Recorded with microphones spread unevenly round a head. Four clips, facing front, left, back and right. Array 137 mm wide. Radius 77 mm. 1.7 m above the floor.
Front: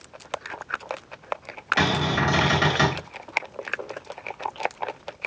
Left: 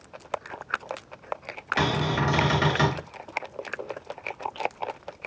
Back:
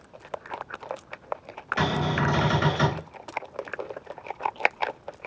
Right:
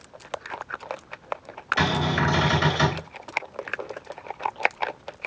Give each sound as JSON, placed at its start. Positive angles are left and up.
{"t": 1.8, "sound": "a cupboard door", "azimuth_deg": 50, "distance_m": 1.1}